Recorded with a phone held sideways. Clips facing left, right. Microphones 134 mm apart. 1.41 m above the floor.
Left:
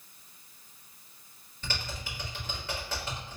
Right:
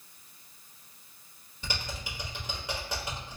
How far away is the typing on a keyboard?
About 1.1 m.